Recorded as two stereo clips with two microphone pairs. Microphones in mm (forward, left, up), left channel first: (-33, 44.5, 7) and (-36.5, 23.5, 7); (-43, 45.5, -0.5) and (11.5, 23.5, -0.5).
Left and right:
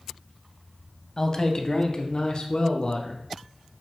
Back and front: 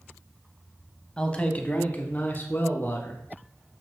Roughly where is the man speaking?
Left.